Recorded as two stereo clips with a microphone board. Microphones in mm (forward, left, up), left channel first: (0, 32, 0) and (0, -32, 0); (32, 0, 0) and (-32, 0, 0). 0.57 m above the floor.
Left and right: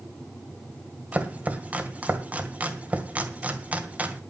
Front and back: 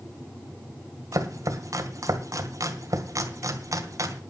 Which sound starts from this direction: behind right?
Chopping, at 1.1 s.